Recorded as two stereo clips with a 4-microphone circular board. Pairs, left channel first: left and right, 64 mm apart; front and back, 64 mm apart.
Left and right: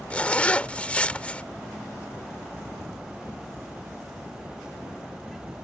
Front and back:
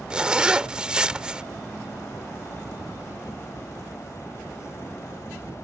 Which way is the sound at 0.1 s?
125° left.